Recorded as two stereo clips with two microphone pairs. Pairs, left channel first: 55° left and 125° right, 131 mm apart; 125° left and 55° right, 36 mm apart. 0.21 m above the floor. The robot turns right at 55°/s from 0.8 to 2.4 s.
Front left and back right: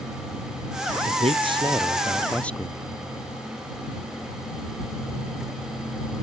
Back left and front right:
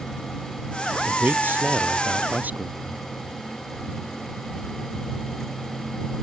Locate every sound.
1.1 s a man speaking: 100° right; by 3.0 s 25° right